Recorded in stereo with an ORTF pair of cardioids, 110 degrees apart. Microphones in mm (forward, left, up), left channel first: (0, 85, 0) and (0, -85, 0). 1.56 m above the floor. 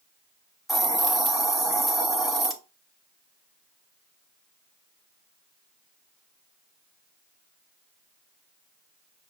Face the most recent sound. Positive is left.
turn(degrees=0)